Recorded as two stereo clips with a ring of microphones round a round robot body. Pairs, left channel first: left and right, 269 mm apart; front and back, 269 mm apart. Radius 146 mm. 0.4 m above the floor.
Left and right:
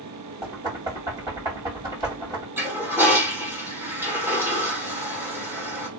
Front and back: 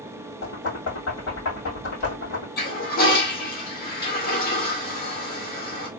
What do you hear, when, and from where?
0.4 s knocking: 15° right, 2.5 m
2.6 s a toilet flushing: 15° right, 1.4 m